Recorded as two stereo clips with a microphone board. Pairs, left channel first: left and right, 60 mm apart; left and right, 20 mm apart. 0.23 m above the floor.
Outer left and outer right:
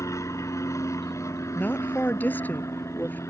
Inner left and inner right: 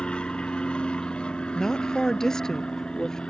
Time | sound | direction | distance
0.0 | an aircraft | 60° left (ahead or behind) | ?
1.6 | a woman speaking | 30° left (ahead or behind) | ?